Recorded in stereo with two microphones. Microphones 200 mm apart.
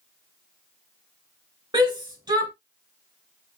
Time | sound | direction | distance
1.7 | a shout | 20° right (ahead or behind) | 0.9 m